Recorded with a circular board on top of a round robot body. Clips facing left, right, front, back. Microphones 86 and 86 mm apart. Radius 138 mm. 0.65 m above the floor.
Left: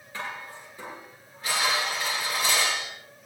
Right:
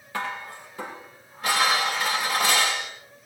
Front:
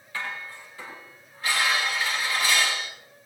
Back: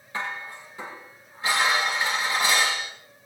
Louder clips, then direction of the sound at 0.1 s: Right 5 dB, back 2 dB; 110° right.